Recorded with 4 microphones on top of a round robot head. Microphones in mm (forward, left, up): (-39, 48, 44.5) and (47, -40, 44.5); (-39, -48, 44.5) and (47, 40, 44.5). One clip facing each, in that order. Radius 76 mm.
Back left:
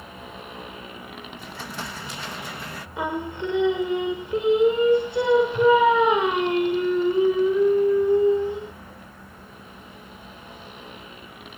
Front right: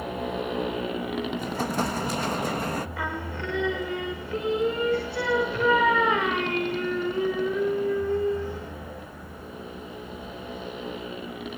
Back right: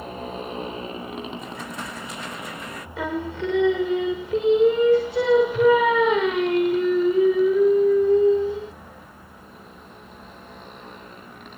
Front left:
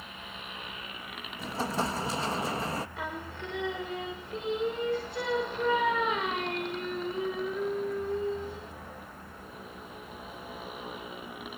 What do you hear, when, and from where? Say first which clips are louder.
0.0 s a motorcycle: front right 10 dB, back right 13 dB; 80° right; by 11.6 s 35° right
1.4 s an explosion: front right 9 dB, front left 2 dB; 5° right
3.0 s singing: back left 4 dB, back right 11 dB; 155° right